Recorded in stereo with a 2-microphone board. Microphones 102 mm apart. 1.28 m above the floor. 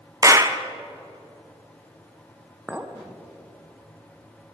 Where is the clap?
30° right (ahead or behind), 0.5 m.